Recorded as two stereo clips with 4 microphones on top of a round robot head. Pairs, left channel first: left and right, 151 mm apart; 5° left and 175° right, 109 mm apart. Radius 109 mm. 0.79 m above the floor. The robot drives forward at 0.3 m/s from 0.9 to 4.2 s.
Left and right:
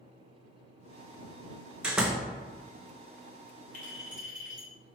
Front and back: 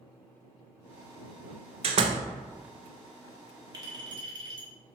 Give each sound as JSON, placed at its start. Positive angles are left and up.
{"t": 1.8, "sound": "a door slam", "azimuth_deg": -175, "distance_m": 0.5}
{"t": 3.7, "sound": "a clink", "azimuth_deg": 135, "distance_m": 1.1}